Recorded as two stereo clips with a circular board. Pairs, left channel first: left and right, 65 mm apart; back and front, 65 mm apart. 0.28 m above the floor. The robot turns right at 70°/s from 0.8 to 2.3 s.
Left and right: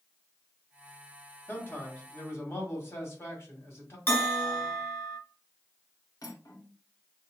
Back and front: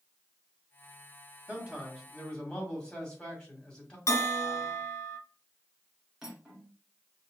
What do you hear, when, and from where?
1.5 s a man speaking: 55° left, 1.9 m; by 4.0 s 110° left, 1.9 m
4.1 s a bell: 140° left, 1.2 m
6.2 s cutlery clinking: 80° left, 1.7 m